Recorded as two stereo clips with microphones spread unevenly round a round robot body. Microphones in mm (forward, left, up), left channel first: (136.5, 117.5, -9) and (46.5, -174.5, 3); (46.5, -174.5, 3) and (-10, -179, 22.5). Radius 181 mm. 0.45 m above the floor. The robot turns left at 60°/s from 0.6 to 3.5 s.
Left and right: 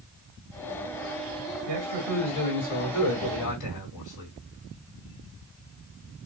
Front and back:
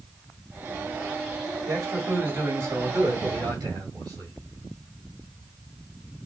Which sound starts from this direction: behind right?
A man speaking, at 1.7 s.